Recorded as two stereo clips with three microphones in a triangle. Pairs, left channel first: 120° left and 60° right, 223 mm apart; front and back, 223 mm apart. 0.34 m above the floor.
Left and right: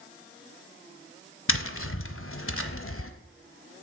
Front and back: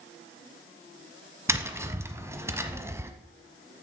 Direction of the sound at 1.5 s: 105° left.